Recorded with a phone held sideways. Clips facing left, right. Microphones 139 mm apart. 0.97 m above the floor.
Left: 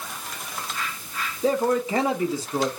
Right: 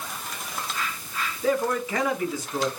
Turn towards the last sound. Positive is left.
turn(degrees=30)  # may be behind; listen again after turning